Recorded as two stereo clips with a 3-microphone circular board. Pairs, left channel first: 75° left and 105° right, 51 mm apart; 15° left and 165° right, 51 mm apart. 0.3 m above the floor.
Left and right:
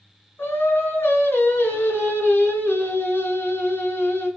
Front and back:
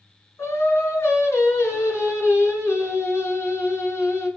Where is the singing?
40° left, 2 m.